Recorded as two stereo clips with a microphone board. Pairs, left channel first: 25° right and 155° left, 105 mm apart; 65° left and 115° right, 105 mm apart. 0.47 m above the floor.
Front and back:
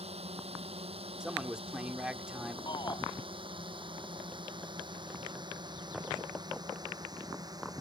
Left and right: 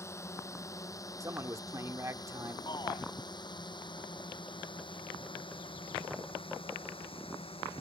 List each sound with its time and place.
0.0 s a drone: 130° left; by 7.8 s 100° left
1.2 s a man speaking: 130° right
2.7 s a shout: 20° left